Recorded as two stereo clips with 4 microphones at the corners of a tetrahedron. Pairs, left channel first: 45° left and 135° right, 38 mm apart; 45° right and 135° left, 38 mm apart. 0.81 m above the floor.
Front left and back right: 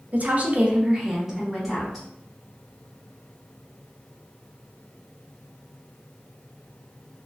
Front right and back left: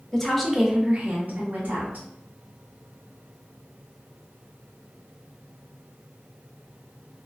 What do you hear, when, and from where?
0.1 s a woman speaking: 115° right, 0.6 m; by 2.0 s 125° left, 0.9 m